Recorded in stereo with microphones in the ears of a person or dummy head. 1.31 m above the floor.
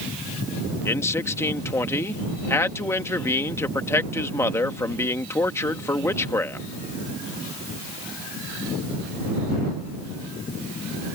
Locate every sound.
0.8 s a man speaking: 20° left (ahead or behind)